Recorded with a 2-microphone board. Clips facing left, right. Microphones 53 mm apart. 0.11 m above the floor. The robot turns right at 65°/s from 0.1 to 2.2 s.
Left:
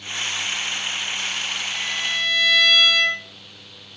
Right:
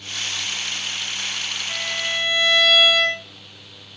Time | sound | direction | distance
1.7 | a violin | 40° right | 1.2 m